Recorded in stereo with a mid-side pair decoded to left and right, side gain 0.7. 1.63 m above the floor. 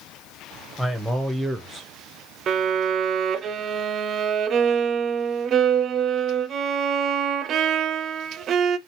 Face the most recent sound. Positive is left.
turn(degrees=-40)